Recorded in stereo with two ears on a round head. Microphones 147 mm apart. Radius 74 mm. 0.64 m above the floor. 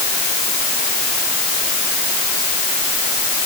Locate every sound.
Only background noise.